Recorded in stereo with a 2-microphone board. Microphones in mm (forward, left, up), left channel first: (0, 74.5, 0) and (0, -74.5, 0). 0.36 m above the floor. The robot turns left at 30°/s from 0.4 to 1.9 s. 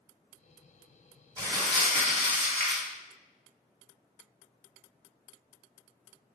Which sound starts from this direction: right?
Crumpling, at 1.4 s.